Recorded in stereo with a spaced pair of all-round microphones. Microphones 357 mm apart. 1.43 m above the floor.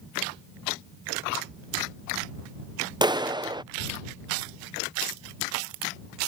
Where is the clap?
10° right (ahead or behind).